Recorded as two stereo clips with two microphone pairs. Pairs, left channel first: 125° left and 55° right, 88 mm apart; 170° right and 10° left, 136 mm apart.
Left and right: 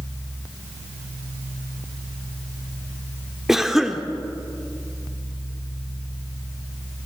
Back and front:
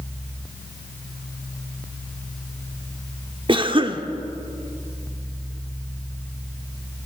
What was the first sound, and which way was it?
A cough, 25° left.